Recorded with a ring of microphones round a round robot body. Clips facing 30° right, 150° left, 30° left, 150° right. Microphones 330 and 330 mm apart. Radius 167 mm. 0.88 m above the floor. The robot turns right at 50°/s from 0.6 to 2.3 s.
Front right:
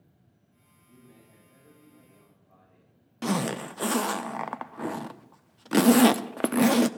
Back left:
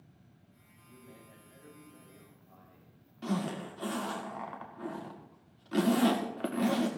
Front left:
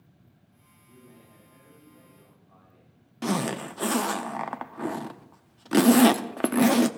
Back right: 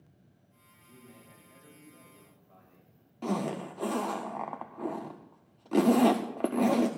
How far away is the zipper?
About 0.5 m.